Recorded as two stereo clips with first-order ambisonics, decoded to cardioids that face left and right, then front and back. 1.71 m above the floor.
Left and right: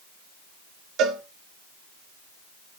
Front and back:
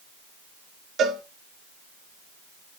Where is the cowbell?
125° right, 1.9 m.